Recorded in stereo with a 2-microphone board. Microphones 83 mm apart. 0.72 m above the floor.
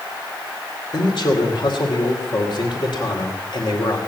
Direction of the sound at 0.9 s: 70° left (ahead or behind).